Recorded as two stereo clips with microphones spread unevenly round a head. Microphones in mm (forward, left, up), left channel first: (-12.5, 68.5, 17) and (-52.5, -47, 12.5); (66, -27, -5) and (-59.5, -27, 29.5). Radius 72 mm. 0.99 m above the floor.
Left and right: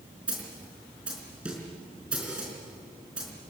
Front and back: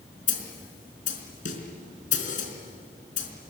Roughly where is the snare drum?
Ahead right.